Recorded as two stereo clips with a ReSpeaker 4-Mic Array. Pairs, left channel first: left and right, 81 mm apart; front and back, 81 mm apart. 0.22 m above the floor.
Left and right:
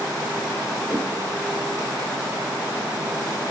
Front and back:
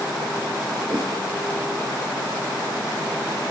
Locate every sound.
0.9 s a whoosh: 150° right, 4 m